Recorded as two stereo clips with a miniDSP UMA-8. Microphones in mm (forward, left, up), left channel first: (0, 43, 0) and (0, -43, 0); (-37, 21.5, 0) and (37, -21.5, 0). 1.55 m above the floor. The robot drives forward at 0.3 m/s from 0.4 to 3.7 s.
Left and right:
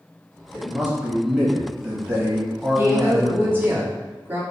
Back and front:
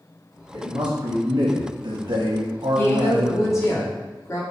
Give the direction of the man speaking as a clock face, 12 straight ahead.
1 o'clock.